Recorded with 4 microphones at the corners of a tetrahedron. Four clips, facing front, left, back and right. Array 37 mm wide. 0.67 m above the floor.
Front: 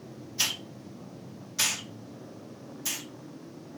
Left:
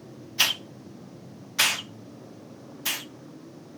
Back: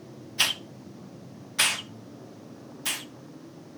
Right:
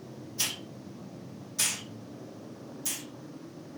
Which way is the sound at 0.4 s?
120° left.